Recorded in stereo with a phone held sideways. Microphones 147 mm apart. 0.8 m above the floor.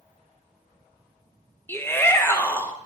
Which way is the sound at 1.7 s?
15° left (ahead or behind).